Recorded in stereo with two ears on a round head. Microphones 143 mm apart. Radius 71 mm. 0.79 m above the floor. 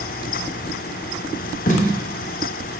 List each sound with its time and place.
1.7 s tape being pulled: 50° left (ahead or behind), 0.7 m